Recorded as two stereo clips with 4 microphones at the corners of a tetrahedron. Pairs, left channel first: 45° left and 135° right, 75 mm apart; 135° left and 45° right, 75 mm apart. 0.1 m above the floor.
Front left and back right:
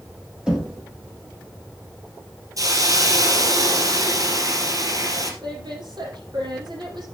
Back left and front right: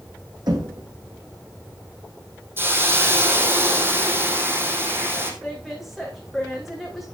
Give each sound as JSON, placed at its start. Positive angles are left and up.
{"t": 0.5, "sound": "knocking", "azimuth_deg": -55, "distance_m": 4.0}
{"t": 2.6, "sound": "a hiss", "azimuth_deg": -100, "distance_m": 3.0}
{"t": 5.4, "sound": "a woman speaking", "azimuth_deg": -135, "distance_m": 5.5}